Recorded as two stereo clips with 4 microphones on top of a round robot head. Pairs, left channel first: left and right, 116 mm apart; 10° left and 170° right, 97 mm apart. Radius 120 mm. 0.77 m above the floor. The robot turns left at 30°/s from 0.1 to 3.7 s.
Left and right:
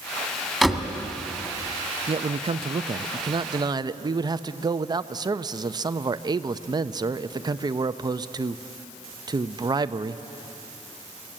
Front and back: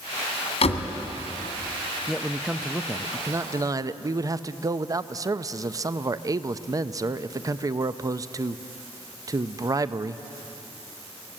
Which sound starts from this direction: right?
A man speaking, at 2.1 s.